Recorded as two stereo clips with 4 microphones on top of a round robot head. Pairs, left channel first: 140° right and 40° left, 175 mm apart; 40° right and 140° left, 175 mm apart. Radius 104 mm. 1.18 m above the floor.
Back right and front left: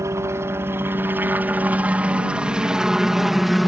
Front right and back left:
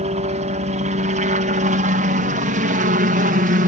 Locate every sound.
0.0 s a helicopter: 110° left; by 3.7 s 130° left